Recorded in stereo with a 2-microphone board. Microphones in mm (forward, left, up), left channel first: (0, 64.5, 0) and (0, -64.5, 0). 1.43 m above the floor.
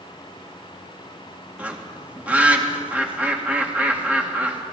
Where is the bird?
10° right (ahead or behind), 2 m.